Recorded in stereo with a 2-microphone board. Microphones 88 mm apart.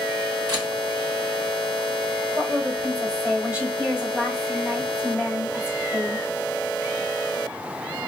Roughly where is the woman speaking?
Centre.